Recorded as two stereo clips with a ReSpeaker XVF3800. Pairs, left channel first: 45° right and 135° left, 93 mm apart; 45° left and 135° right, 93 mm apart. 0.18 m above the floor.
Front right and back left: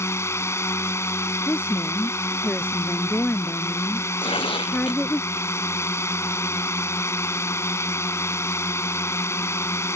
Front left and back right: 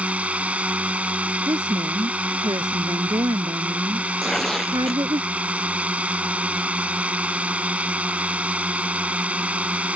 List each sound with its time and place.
0.0 s a drone: 70° right
1.5 s a woman speaking: 115° right
4.2 s tearing paper: 40° right